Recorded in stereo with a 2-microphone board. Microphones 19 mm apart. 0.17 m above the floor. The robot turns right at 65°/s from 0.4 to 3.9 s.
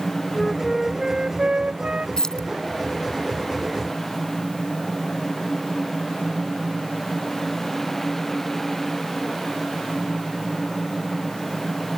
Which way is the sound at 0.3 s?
165° left.